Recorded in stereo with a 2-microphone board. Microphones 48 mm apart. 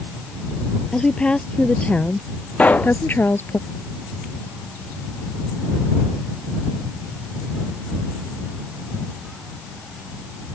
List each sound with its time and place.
0.9 s a woman speaking: 20° left (ahead or behind); by 3.6 s 50° left (ahead or behind)
2.6 s a pop: 30° left (ahead or behind)